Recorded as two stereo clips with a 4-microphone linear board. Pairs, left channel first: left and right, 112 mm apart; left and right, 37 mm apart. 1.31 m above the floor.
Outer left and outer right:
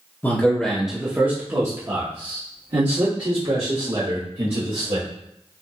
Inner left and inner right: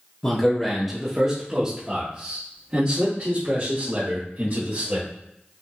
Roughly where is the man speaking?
Centre.